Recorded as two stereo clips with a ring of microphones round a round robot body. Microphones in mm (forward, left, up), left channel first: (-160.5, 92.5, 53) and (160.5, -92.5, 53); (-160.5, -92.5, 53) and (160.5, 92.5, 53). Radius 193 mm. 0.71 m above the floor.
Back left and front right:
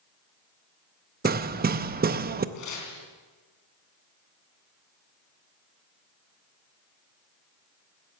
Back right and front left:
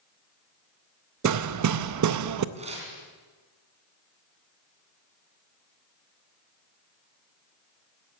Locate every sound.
1.2 s hammering: 25° left, 0.7 m
2.5 s tearing paper: 105° left, 4 m